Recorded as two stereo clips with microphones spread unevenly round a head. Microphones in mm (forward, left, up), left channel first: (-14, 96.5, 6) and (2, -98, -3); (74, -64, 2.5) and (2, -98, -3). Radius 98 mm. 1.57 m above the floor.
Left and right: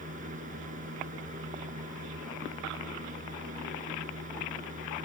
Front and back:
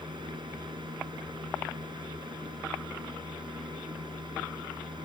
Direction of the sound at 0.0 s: 140° right.